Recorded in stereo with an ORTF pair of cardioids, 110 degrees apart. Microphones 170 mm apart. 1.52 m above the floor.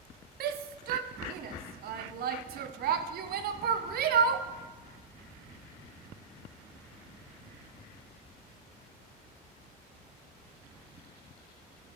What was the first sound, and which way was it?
A shout, 65° right.